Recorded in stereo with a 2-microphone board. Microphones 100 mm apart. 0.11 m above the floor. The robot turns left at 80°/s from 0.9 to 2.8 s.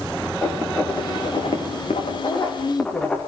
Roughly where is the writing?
Centre.